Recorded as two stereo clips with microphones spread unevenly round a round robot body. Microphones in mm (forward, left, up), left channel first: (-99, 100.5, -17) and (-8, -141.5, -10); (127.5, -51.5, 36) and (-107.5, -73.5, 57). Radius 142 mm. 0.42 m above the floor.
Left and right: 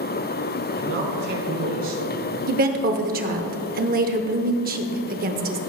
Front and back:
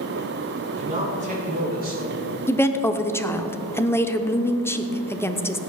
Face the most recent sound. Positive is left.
turn(degrees=-55)